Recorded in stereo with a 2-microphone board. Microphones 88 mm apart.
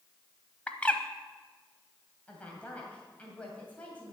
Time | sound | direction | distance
0.7 | a bird | 15° left (ahead or behind) | 0.8 m
2.3 | a woman speaking | 15° left (ahead or behind) | 2 m